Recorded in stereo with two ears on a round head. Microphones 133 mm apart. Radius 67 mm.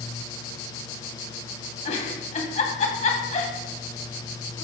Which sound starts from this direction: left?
A giggle, at 1.9 s.